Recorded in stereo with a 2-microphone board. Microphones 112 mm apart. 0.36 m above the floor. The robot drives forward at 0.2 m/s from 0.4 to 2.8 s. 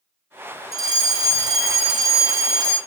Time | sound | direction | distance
0.7 | a fire alarm | 35° right (ahead or behind) | 2 m